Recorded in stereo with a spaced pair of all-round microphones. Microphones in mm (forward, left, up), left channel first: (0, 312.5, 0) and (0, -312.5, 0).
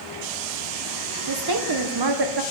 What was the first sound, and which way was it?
A woman speaking, 40° right (ahead or behind).